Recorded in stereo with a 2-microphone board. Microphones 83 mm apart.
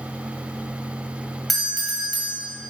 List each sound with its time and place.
1.5 s a doorbell: centre (ahead or behind), 1.7 m